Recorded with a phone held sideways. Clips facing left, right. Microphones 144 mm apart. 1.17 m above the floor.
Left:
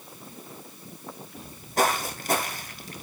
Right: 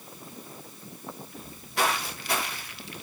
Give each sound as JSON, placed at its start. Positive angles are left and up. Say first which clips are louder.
{"t": 1.4, "sound": "footsteps", "louder": "left 4 dB", "side_deg": 40, "distance_m": 1.6}